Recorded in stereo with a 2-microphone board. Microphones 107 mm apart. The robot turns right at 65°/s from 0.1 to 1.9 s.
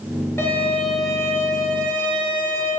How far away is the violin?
About 1.7 m.